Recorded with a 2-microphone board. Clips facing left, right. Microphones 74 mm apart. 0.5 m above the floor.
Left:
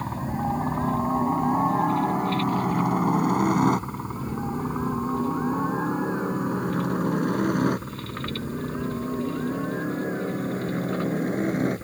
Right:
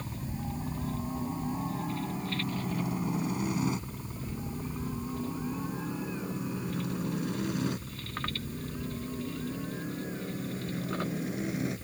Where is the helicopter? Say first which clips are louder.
Left 11 dB; 65° left (ahead or behind); by 11.8 s 45° left (ahead or behind).